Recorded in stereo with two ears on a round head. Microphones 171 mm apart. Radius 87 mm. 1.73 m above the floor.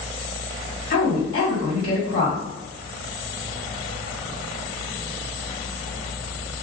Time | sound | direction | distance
0.9 | a woman speaking | 45° left (ahead or behind) | 1.9 m